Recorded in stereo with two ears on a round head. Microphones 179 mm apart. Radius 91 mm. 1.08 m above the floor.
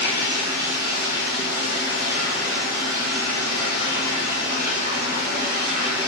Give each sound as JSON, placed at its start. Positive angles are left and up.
{"t": 0.0, "sound": "running water", "side_deg": -55, "distance_m": 1.4}